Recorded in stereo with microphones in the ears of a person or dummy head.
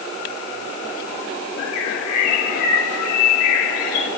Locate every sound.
1.6 s a bird: 85° left, 4.5 m